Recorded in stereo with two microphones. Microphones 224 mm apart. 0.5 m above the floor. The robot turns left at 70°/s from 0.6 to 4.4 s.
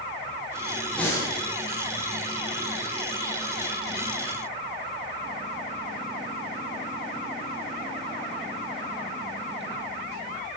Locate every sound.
0.9 s breathing: centre (ahead or behind), 6 m; by 1.3 s 25° left (ahead or behind), 6 m